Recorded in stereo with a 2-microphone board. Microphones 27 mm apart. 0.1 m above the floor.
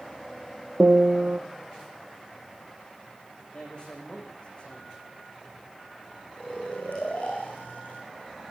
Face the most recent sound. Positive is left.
turn(degrees=75)  # may be behind; listen again after turning